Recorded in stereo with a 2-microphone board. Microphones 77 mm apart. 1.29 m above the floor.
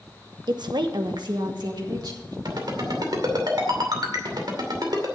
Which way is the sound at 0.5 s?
70° right (ahead or behind).